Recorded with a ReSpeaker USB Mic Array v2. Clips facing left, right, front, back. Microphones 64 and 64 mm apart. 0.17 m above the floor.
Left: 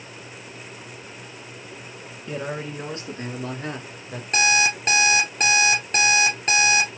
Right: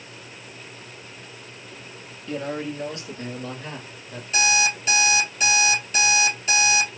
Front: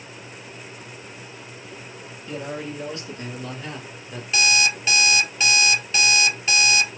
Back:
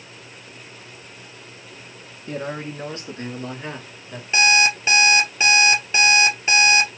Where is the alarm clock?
120° left, 2.0 m.